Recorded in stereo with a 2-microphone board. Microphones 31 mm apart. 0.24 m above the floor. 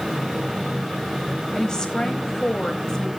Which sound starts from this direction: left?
A woman speaking, at 1.6 s.